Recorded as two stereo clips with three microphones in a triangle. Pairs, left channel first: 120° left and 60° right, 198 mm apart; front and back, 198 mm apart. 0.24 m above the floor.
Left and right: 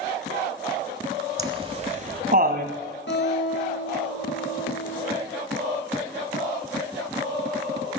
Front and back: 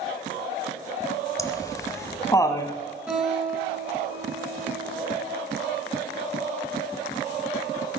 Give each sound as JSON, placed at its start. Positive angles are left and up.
{"t": 1.4, "sound": "laughter", "azimuth_deg": -40, "distance_m": 1.3}
{"t": 3.1, "sound": "a guitar", "azimuth_deg": 95, "distance_m": 8.0}